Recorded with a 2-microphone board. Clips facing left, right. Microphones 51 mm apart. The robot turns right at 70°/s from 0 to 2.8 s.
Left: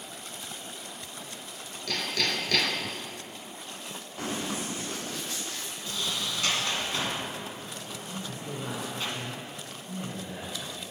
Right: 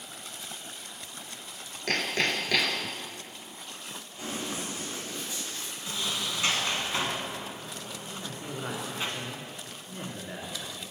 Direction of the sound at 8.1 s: 40° right (ahead or behind).